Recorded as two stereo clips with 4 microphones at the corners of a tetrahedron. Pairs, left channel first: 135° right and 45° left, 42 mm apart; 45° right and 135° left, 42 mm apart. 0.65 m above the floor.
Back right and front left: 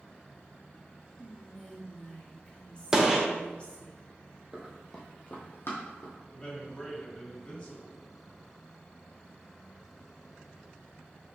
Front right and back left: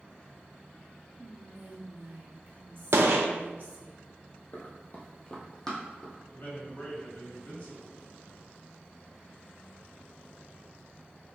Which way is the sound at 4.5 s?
15° right.